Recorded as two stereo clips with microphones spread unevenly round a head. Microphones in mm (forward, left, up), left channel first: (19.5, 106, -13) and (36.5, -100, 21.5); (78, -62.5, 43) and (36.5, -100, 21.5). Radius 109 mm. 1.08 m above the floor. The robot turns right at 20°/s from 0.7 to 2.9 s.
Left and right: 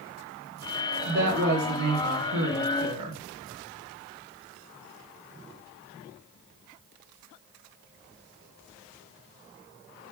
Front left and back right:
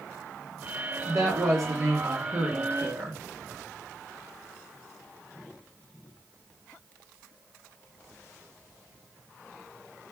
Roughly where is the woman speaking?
Behind right.